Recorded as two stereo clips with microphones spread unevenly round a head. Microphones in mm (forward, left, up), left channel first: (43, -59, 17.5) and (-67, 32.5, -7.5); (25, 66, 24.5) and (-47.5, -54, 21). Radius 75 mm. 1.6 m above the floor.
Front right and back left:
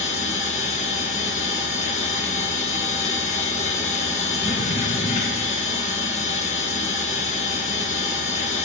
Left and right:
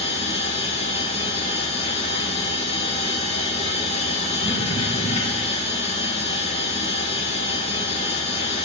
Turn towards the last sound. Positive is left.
turn(degrees=10)